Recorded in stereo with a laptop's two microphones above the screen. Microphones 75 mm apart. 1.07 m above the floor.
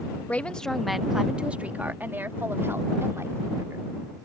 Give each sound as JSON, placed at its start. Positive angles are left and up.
{"t": 0.3, "sound": "a woman speaking", "side_deg": 20}